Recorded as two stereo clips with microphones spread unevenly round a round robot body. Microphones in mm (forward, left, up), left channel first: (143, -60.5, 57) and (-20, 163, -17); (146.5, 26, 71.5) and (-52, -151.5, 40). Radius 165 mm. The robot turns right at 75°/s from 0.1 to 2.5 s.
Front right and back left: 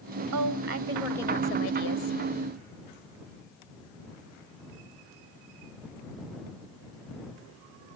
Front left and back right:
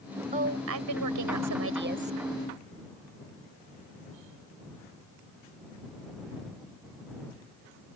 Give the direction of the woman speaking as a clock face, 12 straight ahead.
7 o'clock.